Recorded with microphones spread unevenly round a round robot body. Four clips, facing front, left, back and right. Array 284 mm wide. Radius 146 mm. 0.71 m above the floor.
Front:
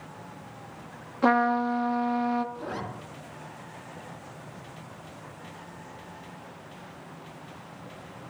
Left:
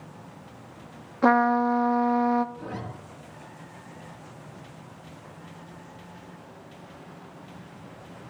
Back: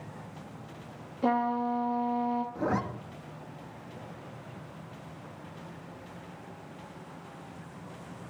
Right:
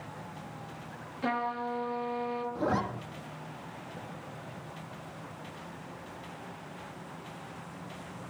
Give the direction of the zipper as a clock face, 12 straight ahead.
5 o'clock.